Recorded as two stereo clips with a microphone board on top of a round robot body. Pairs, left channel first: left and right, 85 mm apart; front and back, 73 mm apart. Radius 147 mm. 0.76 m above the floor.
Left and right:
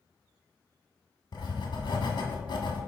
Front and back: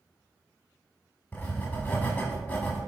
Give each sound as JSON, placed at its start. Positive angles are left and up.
{"t": 1.3, "sound": "writing", "azimuth_deg": 60, "distance_m": 1.4}